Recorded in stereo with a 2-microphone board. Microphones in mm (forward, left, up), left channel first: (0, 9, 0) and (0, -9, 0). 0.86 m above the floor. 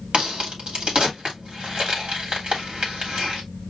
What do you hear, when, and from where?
0.1 s a crack: 65° right (ahead or behind), 2 m